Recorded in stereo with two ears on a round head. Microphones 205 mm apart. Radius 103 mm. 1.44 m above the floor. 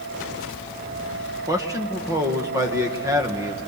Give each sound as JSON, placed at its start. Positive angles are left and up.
{"t": 1.5, "sound": "a man speaking", "side_deg": -15, "distance_m": 1.6}